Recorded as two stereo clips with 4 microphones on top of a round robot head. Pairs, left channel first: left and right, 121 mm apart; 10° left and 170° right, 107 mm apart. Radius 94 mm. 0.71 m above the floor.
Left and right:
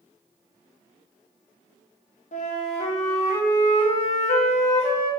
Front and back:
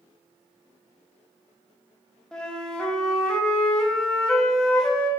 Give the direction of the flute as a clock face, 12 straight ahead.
9 o'clock.